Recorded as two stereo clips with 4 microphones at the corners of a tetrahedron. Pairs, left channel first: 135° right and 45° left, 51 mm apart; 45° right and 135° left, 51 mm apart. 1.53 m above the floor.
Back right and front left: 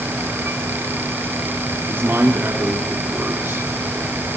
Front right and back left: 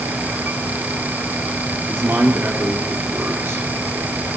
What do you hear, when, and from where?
1.9 s a man speaking: 90° left, 4 m